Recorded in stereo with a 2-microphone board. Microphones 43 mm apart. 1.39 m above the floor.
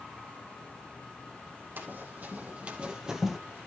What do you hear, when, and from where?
1.8 s running footsteps: 50° right (ahead or behind), 3.5 m; by 3.4 s centre (ahead or behind), 1.8 m